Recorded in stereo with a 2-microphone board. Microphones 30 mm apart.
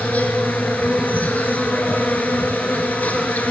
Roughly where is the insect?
Left.